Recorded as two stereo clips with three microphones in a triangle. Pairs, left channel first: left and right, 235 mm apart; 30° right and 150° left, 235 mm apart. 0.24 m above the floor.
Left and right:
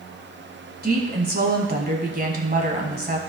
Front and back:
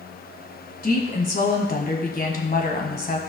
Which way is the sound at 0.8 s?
60° right.